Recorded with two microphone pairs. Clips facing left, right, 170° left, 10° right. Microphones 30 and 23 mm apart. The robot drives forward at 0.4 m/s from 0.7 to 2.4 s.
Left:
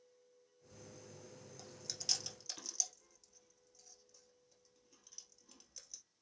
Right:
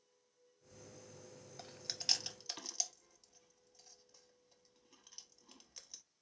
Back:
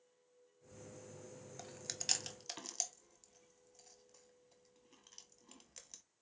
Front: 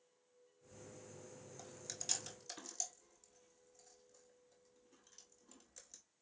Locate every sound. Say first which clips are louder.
1.6 s chewing: right 3 dB, back 4 dB; 140° right, 0.7 m; by 6.0 s 155° right, 1.0 m